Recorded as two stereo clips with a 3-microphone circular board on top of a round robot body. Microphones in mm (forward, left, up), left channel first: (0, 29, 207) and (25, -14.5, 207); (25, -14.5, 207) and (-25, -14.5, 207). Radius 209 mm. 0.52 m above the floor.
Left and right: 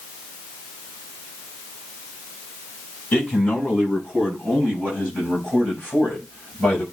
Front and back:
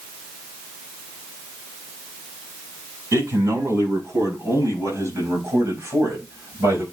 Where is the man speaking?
170° right, 6 m.